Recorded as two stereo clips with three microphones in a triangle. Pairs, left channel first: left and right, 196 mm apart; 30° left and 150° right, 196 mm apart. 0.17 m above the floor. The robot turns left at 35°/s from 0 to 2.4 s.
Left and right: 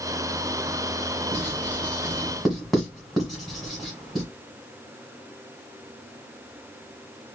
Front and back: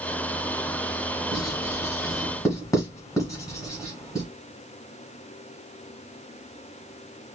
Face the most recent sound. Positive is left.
turn(degrees=0)